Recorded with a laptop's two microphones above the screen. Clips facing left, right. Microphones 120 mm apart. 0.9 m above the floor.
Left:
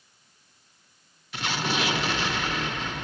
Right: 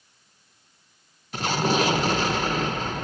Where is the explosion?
40° right (ahead or behind), 0.8 m.